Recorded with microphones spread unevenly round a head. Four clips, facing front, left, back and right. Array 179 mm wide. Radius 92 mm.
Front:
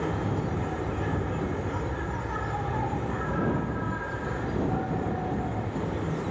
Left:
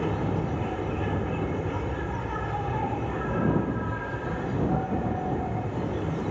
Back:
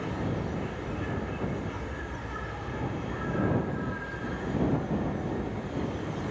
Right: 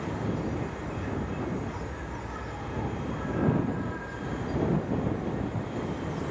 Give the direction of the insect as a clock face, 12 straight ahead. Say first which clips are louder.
Left 4 dB, front 3 dB; 10 o'clock.